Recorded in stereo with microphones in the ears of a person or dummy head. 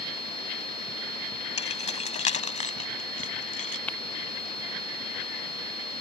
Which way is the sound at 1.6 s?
40° left (ahead or behind).